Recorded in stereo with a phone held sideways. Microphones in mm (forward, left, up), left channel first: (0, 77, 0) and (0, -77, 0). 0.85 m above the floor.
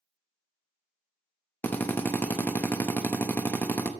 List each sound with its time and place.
1.6 s a drill: 10° left (ahead or behind), 0.7 m